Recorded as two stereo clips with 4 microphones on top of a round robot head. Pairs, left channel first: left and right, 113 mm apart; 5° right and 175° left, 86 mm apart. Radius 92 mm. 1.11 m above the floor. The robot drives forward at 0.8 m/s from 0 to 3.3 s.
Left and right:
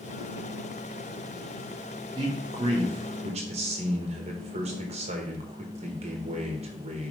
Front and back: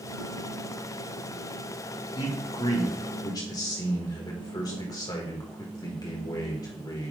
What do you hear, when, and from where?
2.1 s a man speaking: 35° right, 2 m; by 7.1 s 55° right, 1.6 m